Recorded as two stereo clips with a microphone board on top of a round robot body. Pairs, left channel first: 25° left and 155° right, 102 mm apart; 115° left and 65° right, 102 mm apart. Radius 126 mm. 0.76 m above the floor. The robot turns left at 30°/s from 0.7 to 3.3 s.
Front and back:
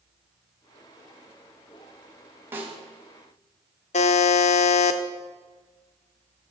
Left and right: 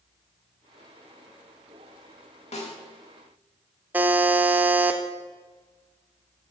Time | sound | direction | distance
2.5 | a snare drum | 135° left | 3 m
3.9 | a buzzer | 10° left | 0.7 m